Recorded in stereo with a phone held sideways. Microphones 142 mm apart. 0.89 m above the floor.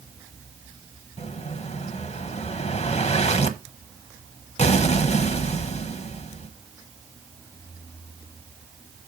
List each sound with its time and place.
1.2 s an explosion: 50° left (ahead or behind), 0.9 m